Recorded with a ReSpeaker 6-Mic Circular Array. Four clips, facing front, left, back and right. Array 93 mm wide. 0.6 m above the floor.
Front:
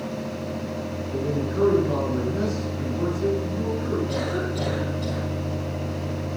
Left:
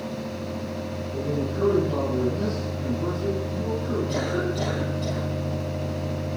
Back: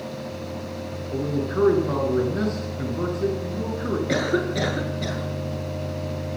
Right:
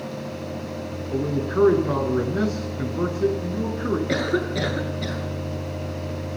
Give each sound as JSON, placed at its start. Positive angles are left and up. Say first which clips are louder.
{"t": 1.1, "sound": "a man speaking", "louder": "right 5 dB, back 2 dB", "azimuth_deg": -110, "distance_m": 9.5}
{"t": 4.1, "sound": "a cough", "louder": "right 3 dB, back 4 dB", "azimuth_deg": -130, "distance_m": 7.0}